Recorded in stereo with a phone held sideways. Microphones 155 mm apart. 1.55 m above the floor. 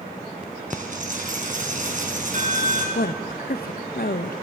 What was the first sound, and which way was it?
A dropped coin, 60° right (ahead or behind).